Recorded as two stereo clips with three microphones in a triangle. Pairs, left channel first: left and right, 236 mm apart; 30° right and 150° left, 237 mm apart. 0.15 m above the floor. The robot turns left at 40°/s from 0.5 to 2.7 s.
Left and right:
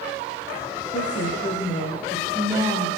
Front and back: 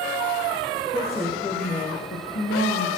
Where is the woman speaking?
55° left, 8.5 m; by 2.9 s 15° right, 8.5 m.